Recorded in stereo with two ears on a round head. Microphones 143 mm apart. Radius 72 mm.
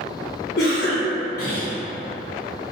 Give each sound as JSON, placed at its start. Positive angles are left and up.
{"t": 0.6, "sound": "a cough", "side_deg": 55, "distance_m": 0.9}